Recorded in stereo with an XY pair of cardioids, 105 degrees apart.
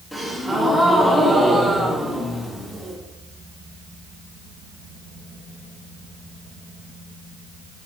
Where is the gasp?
5° left, 1.7 m.